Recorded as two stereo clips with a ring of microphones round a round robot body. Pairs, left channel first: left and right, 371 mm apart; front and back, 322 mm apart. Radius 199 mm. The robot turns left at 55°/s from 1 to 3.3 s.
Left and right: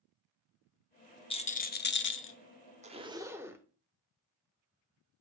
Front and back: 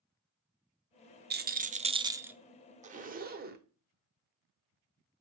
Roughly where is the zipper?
Behind right.